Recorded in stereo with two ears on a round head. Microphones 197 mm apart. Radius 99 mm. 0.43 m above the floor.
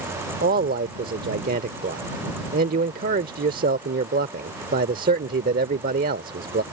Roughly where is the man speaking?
Right.